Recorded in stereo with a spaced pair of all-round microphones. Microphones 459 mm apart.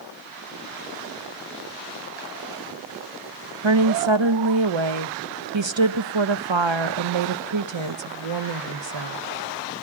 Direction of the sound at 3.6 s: 70° right (ahead or behind).